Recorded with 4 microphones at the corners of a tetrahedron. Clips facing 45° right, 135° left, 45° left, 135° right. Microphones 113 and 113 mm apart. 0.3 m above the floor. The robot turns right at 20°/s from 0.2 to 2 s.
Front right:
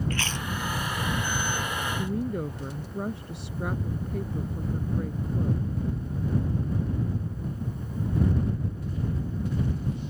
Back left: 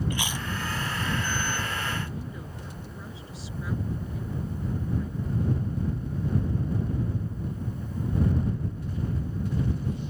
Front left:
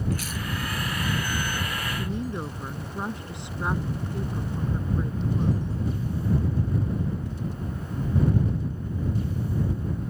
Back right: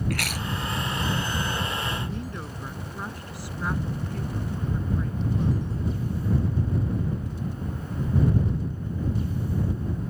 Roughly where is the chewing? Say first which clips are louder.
Even, back right 1 dB; behind right.